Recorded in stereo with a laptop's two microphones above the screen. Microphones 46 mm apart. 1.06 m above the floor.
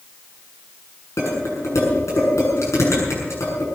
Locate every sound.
1.2 s dishes clattering: 85° left, 7.5 m